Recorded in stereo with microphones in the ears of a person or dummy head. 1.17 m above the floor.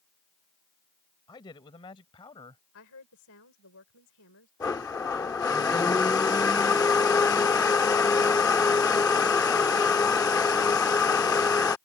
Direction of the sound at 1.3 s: 25° left (ahead or behind).